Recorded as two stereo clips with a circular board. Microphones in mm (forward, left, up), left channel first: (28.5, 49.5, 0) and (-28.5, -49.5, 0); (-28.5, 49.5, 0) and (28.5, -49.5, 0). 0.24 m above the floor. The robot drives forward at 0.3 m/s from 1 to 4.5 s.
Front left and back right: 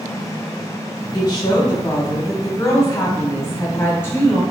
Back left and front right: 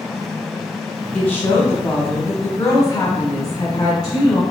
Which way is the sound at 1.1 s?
50° left.